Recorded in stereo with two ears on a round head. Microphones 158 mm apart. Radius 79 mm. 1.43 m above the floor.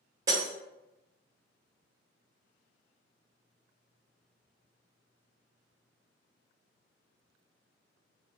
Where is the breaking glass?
20° right (ahead or behind), 1.3 m.